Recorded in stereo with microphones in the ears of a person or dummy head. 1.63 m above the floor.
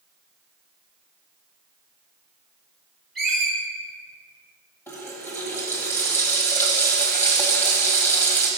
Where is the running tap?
10° left (ahead or behind), 1.2 m.